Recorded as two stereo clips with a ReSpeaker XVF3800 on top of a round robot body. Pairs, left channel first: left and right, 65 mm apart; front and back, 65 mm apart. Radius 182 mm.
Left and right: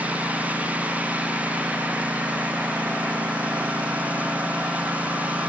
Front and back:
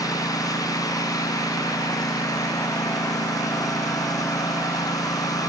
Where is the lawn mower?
25° right.